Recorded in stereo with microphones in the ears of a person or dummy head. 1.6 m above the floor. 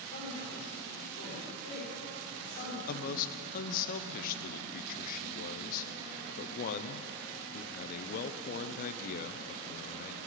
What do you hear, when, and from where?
0.1 s a man speaking: 50° left (ahead or behind), 5.5 m
2.9 s a man speaking: 45° left (ahead or behind), 0.7 m